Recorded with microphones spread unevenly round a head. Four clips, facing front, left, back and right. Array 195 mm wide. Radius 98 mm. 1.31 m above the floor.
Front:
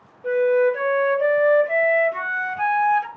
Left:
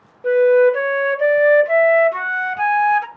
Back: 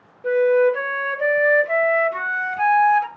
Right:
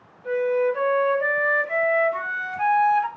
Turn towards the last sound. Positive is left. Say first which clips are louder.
# left 9 dB, back 2 dB
turn(degrees=100)